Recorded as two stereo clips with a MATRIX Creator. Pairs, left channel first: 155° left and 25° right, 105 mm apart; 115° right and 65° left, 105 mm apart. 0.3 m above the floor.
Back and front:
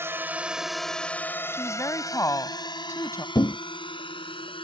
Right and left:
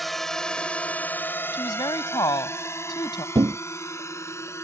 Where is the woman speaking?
150° right.